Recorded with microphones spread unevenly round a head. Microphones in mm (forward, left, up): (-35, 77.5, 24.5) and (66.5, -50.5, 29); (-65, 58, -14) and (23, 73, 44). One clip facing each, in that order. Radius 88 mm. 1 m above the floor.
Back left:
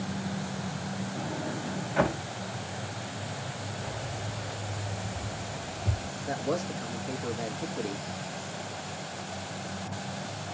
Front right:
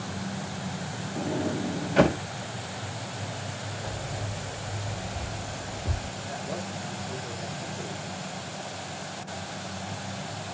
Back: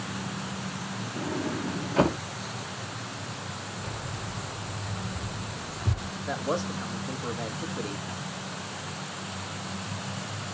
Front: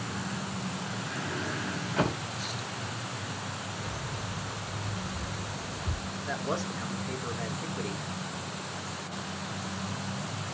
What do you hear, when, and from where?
1.2 s a sliding door: 80° right, 0.5 m
3.8 s keys jangling: 140° right, 2.5 m
6.3 s a man speaking: 135° left, 1.5 m